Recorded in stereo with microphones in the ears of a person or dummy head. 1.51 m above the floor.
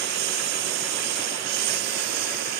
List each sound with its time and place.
0.0 s a lawn mower: 65° right (ahead or behind); by 2.6 s 60° right (ahead or behind)